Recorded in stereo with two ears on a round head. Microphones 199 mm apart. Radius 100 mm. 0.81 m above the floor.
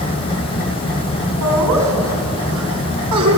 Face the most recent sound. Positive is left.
turn(degrees=-80)